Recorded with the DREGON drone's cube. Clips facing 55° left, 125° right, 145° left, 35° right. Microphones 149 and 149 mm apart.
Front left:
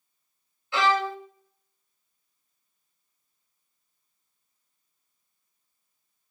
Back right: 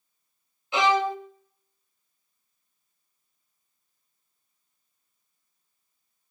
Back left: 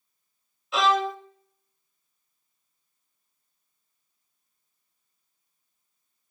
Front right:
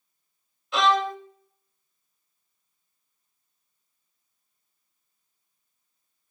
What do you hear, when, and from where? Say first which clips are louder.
0.7 s a violin: back right 2 dB, front right 1 dB; 125° right, 0.6 m